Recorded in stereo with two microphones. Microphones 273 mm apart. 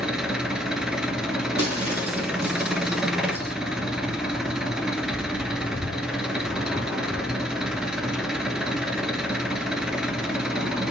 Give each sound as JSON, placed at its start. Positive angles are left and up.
{"t": 0.0, "sound": "an engine running", "side_deg": -5, "distance_m": 0.7}
{"t": 1.6, "sound": "breaking glass", "side_deg": -60, "distance_m": 2.0}